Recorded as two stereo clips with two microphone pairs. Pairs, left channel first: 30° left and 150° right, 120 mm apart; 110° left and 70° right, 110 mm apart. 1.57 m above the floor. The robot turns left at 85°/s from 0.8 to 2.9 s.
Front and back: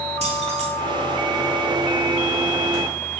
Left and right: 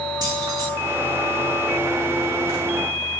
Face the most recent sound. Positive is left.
turn(degrees=60)